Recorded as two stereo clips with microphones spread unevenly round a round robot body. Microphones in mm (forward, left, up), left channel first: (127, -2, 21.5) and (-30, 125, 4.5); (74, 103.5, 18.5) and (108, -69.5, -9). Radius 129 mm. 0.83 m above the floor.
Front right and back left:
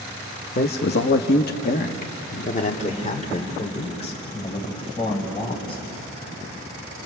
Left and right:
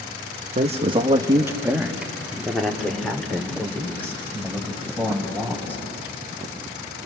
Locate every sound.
0.6 s a man speaking: 75° right, 1.3 m; by 5.8 s 25° left, 7 m